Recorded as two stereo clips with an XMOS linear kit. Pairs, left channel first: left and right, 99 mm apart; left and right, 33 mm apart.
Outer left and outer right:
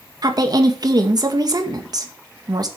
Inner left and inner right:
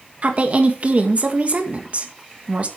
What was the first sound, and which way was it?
A woman speaking, 40° right (ahead or behind).